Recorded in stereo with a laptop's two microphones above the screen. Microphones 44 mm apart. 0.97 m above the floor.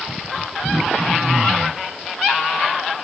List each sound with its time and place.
0.6 s throat clearing: 10° right (ahead or behind), 3.5 m